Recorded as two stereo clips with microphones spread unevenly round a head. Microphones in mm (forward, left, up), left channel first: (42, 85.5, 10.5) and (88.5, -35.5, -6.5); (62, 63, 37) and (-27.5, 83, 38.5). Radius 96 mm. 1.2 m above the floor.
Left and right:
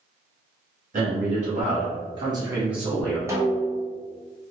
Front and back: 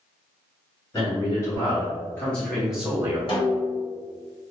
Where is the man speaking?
65° right, 1.4 m; by 3.2 s 170° left, 0.6 m.